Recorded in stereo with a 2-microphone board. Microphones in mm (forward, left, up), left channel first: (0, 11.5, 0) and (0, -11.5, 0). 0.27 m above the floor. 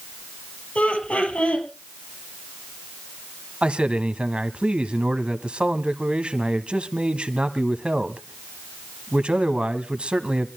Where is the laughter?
60° left (ahead or behind), 6 m.